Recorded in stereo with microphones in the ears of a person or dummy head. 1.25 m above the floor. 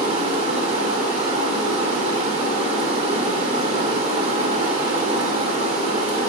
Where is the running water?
35° right (ahead or behind), 1.1 m.